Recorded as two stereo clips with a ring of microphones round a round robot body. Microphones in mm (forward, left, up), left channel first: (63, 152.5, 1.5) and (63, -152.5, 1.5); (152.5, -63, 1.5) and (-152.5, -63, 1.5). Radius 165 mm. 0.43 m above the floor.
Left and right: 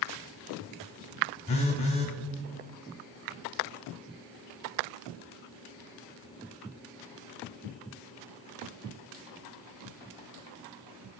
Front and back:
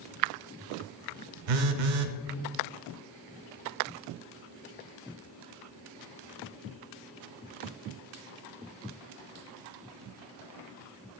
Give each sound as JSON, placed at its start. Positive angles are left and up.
{"t": 1.5, "sound": "a phone buzzing", "azimuth_deg": 165, "distance_m": 0.6}